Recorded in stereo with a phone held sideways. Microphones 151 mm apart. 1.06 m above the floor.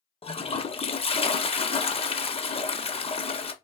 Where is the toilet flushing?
40° left (ahead or behind), 0.5 m.